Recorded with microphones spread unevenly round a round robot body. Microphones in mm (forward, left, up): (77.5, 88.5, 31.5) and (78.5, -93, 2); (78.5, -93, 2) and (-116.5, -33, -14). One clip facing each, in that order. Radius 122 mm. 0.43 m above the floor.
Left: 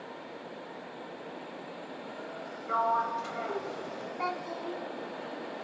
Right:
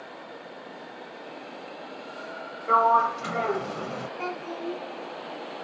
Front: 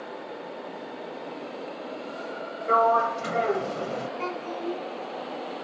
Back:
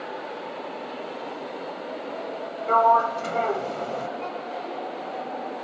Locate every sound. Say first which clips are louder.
2.7 s a sliding door: right 8 dB, back 1 dB; 95° right, 1.0 m
4.2 s a child speaking: right 1 dB, front 1 dB; 35° right, 3 m